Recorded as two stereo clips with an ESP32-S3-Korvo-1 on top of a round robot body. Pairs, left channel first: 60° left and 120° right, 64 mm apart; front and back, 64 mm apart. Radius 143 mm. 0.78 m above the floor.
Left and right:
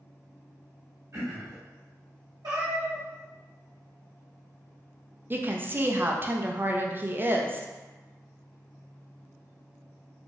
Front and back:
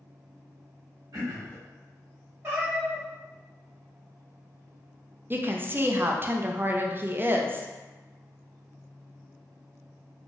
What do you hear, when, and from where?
1.1 s throat clearing: 160° right, 1.6 m
2.4 s a cat meowing: 130° right, 1.5 m
5.3 s a woman speaking: 150° right, 0.6 m